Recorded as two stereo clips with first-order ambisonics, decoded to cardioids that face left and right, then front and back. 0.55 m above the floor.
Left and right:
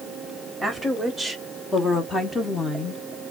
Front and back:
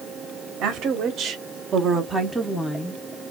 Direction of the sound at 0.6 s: Straight behind.